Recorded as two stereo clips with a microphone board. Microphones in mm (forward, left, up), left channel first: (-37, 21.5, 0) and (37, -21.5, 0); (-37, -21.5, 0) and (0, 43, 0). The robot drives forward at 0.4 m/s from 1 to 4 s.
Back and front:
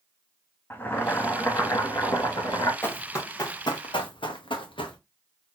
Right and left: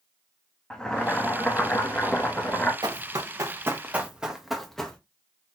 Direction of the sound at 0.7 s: 170° left.